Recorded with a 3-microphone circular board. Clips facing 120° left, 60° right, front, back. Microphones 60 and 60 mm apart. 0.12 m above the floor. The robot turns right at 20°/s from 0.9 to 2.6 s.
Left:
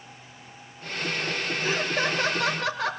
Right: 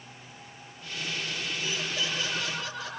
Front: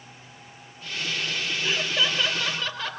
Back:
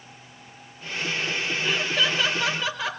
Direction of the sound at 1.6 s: 80° left.